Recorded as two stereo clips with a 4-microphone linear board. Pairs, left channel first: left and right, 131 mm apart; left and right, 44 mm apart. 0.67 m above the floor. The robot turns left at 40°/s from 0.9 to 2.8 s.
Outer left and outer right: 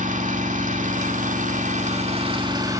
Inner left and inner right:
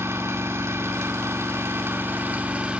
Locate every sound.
0.0 s an engine running: 80° right, 1.2 m; by 2.8 s 155° right, 1.2 m